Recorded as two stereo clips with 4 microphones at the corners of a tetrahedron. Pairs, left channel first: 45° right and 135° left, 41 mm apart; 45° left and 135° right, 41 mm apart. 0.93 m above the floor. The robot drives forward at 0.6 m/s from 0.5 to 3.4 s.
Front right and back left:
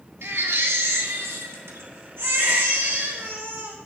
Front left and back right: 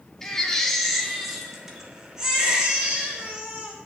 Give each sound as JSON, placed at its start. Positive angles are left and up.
{"t": 0.2, "sound": "a baby crying", "azimuth_deg": 125, "distance_m": 1.2}